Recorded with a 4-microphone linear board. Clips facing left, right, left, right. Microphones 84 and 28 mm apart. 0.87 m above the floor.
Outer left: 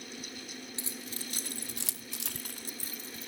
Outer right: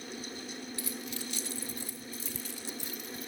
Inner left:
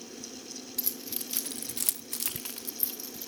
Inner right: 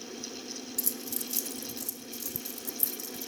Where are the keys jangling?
25° left (ahead or behind), 1.5 m.